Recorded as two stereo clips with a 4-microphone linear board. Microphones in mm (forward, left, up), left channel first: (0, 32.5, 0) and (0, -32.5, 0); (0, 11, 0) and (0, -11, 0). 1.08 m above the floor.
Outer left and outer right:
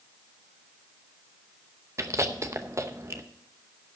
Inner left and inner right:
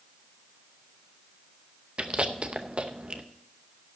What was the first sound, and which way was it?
Chewing, 45° right (ahead or behind).